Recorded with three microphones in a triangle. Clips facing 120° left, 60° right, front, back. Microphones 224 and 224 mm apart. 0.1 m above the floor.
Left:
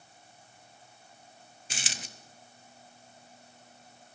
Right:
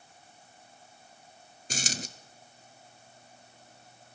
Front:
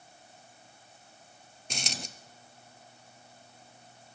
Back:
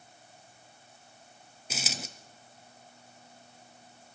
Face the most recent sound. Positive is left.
turn(degrees=-95)